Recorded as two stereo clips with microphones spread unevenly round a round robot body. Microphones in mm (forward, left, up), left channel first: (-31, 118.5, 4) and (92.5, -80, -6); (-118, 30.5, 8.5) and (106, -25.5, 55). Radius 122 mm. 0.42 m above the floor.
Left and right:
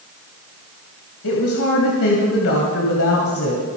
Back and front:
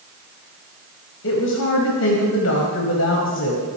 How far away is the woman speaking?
About 2 m.